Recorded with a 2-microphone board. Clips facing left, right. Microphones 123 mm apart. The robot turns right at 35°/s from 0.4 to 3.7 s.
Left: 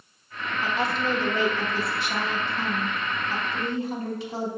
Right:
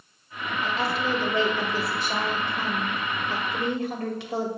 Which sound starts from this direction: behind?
A woman speaking, at 0.6 s.